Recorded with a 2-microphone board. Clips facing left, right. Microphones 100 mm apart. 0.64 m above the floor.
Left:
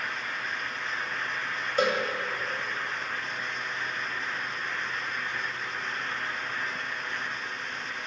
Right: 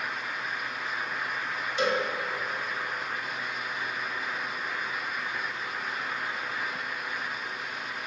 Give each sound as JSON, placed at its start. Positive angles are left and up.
{"t": 1.8, "sound": "a cowbell", "side_deg": 45, "distance_m": 3.0}